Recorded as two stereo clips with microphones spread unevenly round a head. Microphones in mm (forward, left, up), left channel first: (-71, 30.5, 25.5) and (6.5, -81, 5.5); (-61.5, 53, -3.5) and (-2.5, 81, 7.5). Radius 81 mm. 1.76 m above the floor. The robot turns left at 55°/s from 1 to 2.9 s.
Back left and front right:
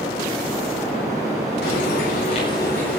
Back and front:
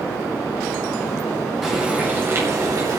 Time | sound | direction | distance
1.6 | frying | 110° left | 9 m